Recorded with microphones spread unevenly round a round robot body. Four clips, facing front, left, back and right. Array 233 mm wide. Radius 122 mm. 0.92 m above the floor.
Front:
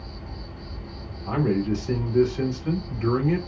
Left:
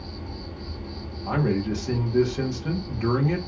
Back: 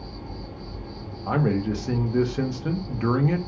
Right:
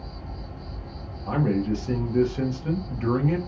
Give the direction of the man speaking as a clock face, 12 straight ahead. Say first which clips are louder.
Right 1 dB, even; 6 o'clock.